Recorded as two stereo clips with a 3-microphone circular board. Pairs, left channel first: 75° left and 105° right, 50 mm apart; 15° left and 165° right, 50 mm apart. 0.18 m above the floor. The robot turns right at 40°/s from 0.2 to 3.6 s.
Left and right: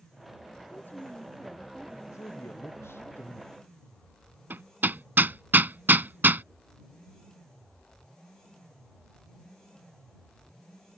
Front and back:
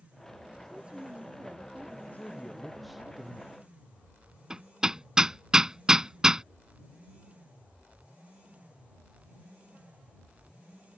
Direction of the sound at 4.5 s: 95° right.